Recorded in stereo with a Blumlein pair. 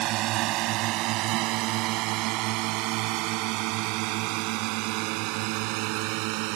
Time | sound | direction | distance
0.0 | a drone | 40° right | ?